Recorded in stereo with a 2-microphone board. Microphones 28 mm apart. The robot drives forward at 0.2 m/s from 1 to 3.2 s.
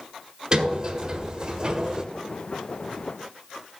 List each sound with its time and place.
0.5 s a sliding door: 30° right (ahead or behind), 1.4 m